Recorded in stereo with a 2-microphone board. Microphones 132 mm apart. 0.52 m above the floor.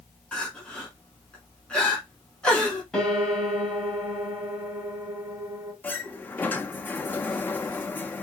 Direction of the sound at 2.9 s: 5° left (ahead or behind).